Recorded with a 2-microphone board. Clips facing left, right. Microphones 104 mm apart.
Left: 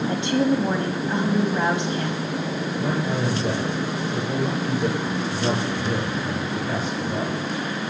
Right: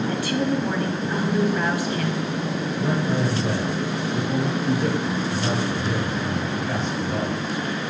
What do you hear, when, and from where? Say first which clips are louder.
0.1 s a woman speaking: left 5 dB; 20° left (ahead or behind), 1.4 m
2.8 s a man speaking: right 2 dB; 5° left (ahead or behind), 5 m